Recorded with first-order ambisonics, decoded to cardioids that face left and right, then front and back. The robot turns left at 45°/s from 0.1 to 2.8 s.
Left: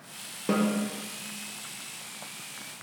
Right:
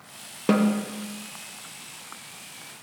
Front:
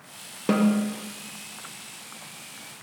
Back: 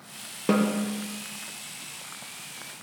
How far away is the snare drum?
About 0.7 m.